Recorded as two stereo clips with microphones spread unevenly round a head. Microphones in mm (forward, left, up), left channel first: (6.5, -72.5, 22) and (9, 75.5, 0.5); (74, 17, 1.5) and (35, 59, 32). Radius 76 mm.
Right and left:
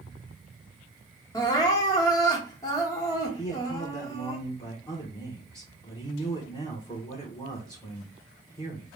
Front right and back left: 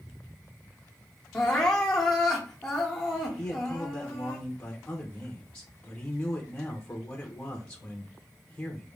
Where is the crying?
145° right, 0.9 m.